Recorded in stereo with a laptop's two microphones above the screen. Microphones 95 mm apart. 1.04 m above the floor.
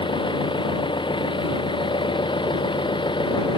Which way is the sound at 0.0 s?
60° left (ahead or behind).